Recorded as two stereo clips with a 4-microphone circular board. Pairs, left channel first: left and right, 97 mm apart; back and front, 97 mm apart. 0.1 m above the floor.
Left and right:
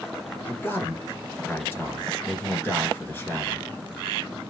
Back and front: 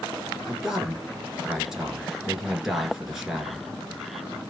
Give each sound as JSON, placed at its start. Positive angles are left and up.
{"t": 0.5, "sound": "a man speaking", "azimuth_deg": 80, "distance_m": 1.1}